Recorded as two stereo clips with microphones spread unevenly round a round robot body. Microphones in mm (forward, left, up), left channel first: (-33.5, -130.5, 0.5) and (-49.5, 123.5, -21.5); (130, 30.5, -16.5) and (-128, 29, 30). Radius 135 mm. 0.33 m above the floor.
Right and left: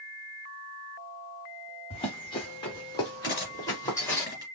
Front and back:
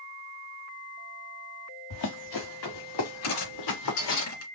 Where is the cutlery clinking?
20° right, 3 m.